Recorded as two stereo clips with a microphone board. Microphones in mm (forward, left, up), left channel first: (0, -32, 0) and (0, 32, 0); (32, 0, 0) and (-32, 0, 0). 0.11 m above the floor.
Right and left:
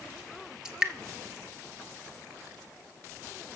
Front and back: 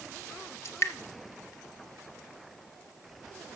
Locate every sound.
0.7 s dripping: 15° left, 0.8 m